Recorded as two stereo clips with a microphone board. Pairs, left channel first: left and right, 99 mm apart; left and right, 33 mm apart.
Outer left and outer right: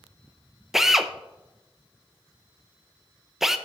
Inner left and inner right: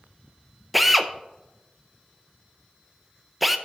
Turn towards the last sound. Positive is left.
turn(degrees=-5)  # may be behind; listen again after turning